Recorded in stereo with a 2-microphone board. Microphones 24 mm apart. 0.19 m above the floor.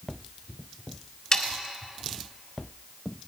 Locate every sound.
1.3 s sawing: 30° left (ahead or behind), 1.3 m